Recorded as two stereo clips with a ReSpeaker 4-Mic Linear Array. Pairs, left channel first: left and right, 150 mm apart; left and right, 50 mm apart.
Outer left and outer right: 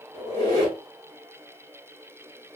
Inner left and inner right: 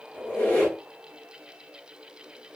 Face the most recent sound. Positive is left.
turn(degrees=45)  # may be behind; listen again after turning